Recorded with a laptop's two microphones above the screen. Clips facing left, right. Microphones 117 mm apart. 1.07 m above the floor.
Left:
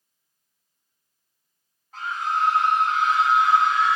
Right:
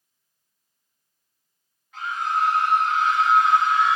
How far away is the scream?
About 0.7 m.